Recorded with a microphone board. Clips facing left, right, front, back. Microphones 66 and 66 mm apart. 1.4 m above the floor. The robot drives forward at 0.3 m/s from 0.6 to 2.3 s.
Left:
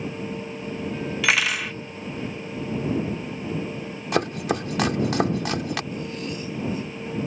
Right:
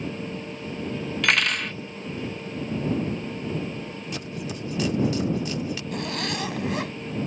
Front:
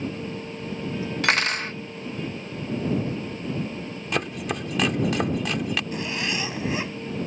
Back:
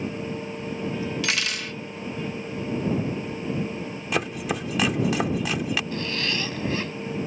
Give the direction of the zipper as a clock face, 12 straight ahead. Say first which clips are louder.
Right 2 dB, even; 2 o'clock.